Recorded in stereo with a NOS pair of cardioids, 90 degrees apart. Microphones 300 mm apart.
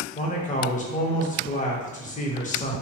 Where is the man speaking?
25° left, 0.8 m.